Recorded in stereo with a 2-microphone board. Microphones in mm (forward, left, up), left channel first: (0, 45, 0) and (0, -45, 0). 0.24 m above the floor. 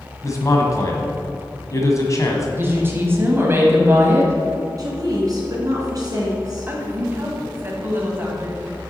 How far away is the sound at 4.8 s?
About 2.5 m.